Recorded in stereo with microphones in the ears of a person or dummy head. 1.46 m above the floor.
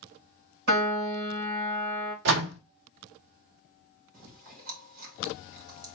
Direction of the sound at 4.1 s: 50° right (ahead or behind).